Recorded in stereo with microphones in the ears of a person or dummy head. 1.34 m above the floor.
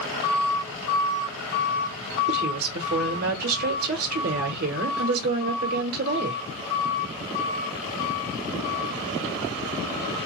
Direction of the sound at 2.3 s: 55° right (ahead or behind).